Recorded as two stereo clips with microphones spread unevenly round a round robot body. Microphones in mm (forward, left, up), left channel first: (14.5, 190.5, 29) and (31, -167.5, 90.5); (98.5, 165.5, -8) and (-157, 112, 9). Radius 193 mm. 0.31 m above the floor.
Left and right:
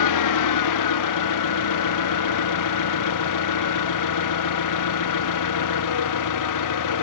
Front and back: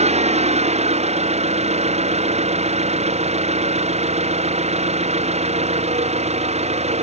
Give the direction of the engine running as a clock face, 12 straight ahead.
8 o'clock.